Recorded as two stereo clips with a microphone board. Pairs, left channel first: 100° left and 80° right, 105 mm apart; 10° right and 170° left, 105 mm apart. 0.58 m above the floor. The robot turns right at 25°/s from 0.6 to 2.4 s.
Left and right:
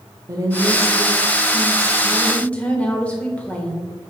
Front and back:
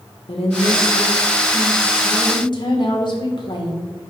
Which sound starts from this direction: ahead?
A woman speaking, at 0.3 s.